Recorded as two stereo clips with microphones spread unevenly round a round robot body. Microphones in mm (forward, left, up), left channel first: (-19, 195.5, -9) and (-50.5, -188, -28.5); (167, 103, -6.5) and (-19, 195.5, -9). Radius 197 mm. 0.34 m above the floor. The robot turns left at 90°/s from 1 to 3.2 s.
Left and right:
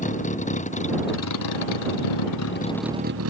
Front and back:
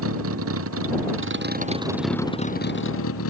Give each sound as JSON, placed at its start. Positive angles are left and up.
{"t": 0.0, "sound": "a vehicle", "azimuth_deg": 155}